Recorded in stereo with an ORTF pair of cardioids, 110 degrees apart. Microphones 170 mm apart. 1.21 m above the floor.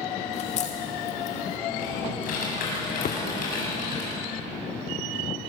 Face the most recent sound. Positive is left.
turn(degrees=60)